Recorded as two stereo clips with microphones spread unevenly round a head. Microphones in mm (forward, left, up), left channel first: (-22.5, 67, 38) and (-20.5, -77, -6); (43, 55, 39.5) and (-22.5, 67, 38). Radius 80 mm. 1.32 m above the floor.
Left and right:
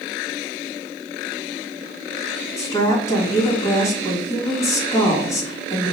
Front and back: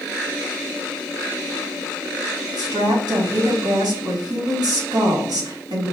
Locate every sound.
2.6 s a woman speaking: 160° left, 2 m